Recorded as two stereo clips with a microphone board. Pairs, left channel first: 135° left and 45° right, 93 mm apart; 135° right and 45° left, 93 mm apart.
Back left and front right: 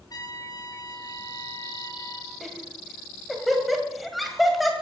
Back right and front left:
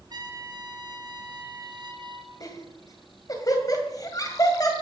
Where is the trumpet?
90° left, 2 m.